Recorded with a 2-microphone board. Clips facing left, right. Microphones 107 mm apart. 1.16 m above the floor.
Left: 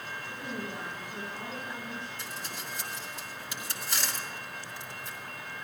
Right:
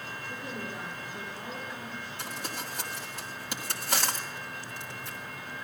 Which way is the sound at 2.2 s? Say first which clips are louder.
Right 3 dB; 65° right (ahead or behind).